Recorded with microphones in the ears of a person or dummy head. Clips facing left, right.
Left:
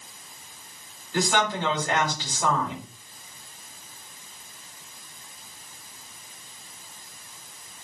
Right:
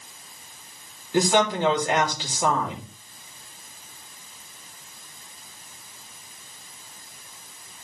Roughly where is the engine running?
I don't hear an engine running.